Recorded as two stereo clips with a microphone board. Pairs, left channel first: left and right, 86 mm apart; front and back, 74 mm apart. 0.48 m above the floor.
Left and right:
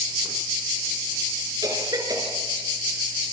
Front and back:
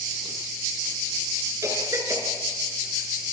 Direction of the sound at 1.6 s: 135° right.